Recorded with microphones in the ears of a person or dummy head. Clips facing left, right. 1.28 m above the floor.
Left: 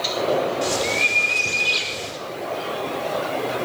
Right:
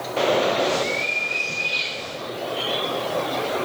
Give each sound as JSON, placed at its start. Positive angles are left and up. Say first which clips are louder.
{"t": 0.6, "sound": "a bird", "louder": "right 1 dB", "side_deg": 85, "distance_m": 5.0}